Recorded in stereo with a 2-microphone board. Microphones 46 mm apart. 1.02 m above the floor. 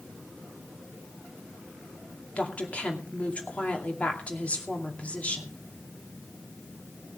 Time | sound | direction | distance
2.4 | a woman speaking | 30° left (ahead or behind) | 2.5 m